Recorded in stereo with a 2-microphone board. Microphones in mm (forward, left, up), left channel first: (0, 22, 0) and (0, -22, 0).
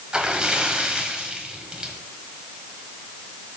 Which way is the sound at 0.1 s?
20° right (ahead or behind).